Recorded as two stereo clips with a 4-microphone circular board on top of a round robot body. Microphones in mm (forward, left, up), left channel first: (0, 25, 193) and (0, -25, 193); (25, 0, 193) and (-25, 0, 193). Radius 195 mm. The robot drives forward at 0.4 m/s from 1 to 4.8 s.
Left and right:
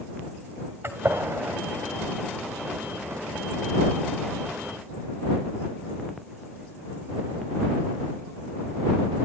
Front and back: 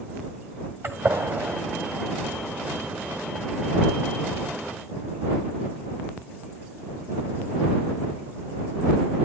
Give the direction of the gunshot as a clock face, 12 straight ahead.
4 o'clock.